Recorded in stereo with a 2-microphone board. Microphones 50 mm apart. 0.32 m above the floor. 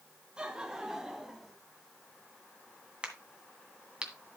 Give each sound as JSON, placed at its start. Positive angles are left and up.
{"t": 0.4, "sound": "laughter", "side_deg": -20, "distance_m": 2.5}
{"t": 3.0, "sound": "a crack", "side_deg": -20, "distance_m": 2.0}